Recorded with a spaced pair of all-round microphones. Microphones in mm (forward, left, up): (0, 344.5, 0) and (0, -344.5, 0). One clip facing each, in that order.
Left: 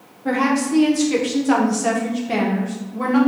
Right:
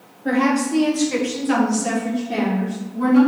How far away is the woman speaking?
About 1.9 m.